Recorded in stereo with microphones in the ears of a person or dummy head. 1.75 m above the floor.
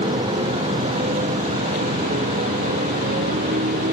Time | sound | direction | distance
0.0 | a motorcycle | 25° right (ahead or behind) | ?